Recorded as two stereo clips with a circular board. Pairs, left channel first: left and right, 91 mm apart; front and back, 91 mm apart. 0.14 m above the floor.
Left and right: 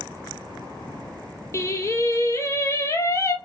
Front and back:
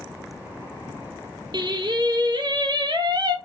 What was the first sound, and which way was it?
Singing, 145° left.